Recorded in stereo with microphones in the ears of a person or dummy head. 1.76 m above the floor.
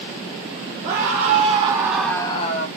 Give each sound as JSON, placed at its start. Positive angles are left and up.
{"t": 0.8, "sound": "a scream", "side_deg": -50, "distance_m": 2.5}